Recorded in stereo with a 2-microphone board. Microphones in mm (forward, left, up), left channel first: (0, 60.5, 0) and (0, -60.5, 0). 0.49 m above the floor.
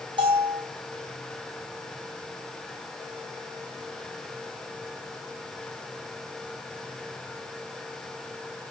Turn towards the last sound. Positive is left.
turn(degrees=-45)  # may be behind; listen again after turning